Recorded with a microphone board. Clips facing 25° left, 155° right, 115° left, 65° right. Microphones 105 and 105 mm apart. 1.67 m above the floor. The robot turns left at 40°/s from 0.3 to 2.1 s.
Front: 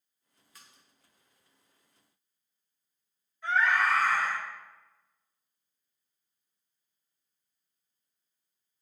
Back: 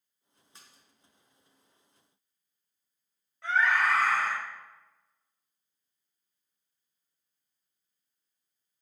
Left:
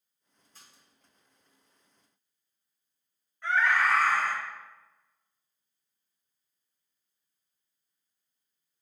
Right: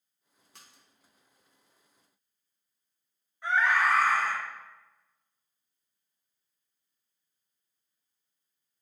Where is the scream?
145° right, 2.5 m.